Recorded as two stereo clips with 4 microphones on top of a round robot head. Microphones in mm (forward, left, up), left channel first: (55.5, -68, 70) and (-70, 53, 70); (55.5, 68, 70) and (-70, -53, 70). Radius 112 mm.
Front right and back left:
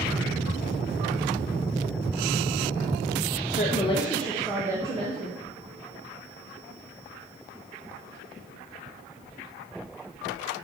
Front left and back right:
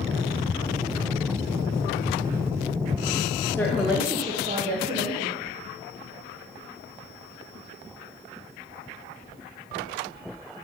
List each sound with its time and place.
3.5 s a woman speaking: 30° right, 0.6 m; by 5.4 s 170° right, 0.8 m